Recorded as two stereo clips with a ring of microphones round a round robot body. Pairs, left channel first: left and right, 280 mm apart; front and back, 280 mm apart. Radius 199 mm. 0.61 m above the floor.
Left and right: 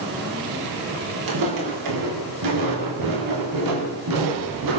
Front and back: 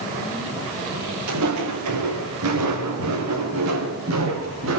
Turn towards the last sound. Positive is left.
turn(degrees=-120)